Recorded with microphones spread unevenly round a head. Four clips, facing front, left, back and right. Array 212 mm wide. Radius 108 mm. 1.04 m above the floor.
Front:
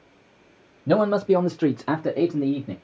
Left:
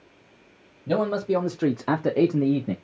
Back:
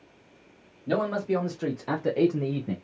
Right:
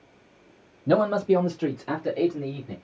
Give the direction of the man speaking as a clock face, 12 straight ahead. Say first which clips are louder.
Right 3 dB, front 7 dB; 1 o'clock.